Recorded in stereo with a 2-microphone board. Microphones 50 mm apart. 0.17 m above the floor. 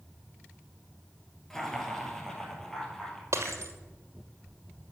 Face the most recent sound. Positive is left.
turn(degrees=-75)  # may be behind; listen again after turning